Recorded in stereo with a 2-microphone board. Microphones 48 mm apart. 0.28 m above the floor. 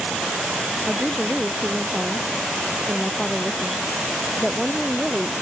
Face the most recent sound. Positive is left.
turn(degrees=-5)  # may be behind; listen again after turning